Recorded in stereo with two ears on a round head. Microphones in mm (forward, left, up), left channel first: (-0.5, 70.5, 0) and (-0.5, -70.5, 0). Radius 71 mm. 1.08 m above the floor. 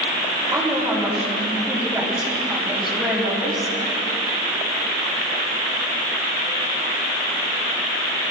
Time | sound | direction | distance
0.5 | a woman speaking | 10° right (ahead or behind) | 8 m